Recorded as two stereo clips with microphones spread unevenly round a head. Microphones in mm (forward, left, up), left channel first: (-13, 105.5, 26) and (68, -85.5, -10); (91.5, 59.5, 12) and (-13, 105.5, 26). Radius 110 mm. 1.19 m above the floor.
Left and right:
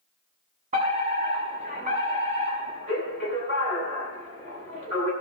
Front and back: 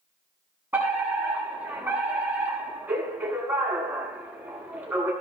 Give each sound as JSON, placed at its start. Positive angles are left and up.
{"t": 0.7, "sound": "a fire alarm", "azimuth_deg": -125, "distance_m": 7.5}